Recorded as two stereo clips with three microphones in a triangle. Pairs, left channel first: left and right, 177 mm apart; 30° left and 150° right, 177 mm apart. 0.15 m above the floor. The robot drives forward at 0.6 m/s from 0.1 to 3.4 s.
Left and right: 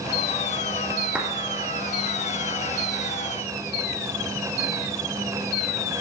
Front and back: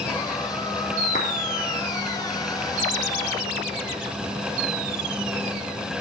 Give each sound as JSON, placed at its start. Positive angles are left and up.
{"t": 1.1, "sound": "a clap", "azimuth_deg": -5, "distance_m": 3.0}